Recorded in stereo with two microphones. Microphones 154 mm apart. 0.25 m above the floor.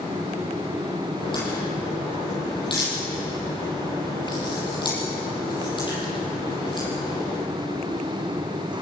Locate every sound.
1.2 s a crack: 30° left (ahead or behind), 8.5 m